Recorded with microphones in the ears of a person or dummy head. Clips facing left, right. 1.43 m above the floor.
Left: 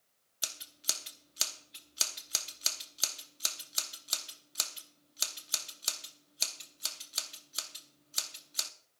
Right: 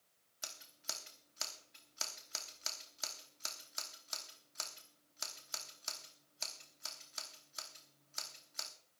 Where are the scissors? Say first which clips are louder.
Left 4 dB; 50° left (ahead or behind), 0.9 m.